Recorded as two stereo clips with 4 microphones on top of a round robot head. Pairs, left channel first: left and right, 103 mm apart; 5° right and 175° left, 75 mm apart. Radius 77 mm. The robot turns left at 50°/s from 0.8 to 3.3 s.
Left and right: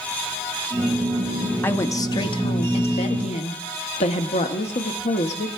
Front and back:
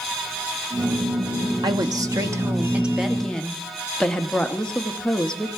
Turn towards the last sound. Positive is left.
turn(degrees=75)